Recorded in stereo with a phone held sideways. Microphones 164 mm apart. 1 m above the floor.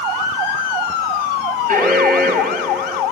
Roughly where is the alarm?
Right.